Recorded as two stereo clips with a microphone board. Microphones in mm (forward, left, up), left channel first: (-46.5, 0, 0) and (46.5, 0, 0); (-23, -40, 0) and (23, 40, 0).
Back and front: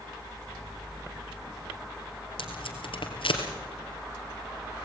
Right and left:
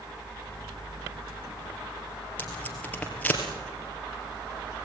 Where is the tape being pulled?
165° left, 3 m.